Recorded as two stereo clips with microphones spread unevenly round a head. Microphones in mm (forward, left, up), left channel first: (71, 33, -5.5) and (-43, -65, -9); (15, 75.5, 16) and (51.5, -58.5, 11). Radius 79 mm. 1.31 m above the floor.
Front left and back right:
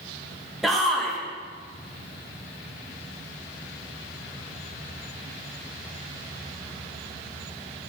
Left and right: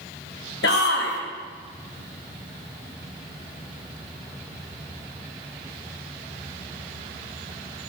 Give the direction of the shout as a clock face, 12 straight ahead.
8 o'clock.